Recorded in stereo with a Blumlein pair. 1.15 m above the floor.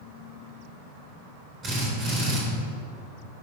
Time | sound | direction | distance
1.6 | a drill | 30° right | 3 m